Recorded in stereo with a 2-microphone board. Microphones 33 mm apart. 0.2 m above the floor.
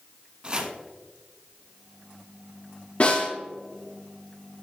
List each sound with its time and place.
0.4 s chopping: 25° right (ahead or behind), 1.0 m
3.0 s a snare drum: 50° left (ahead or behind), 3 m